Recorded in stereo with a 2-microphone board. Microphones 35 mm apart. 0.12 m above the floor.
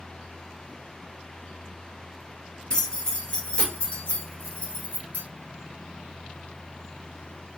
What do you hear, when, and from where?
2.7 s keys jangling: 25° left (ahead or behind), 1.6 m; by 5.2 s 45° left (ahead or behind), 1.3 m